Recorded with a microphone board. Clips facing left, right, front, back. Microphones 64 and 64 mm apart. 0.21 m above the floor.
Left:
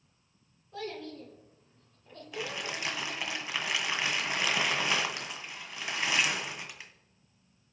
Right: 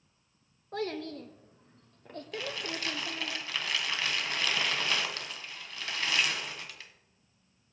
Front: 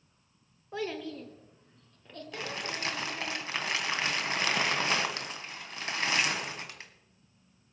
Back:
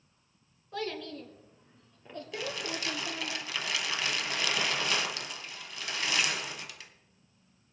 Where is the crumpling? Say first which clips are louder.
Left 1 dB, even; 30° left, 1.3 m.